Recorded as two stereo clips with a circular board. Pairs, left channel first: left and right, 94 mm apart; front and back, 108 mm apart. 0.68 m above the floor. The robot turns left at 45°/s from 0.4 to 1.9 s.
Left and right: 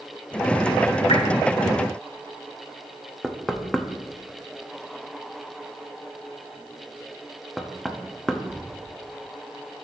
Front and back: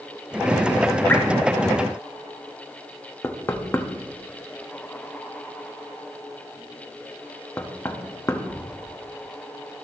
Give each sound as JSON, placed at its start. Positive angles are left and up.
{"t": 1.1, "sound": "dripping", "azimuth_deg": 70, "distance_m": 1.6}
{"t": 3.2, "sound": "knocking", "azimuth_deg": 0, "distance_m": 0.8}